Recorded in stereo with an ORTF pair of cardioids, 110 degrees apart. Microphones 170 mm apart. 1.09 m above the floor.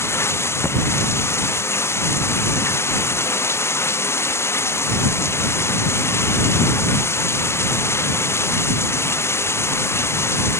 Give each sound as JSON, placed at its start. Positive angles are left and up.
{"t": 0.0, "sound": "running water", "azimuth_deg": 15}